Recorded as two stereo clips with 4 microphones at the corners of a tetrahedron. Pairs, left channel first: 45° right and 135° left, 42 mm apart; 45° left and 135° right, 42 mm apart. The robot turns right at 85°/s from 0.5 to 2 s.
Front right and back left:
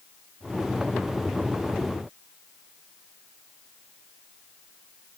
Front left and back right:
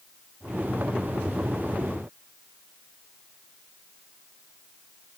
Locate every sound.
Only background noise.